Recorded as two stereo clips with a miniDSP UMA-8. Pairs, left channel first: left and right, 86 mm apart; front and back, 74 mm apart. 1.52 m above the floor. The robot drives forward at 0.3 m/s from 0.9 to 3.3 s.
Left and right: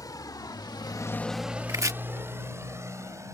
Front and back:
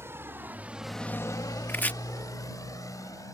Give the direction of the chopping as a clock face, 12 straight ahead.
2 o'clock.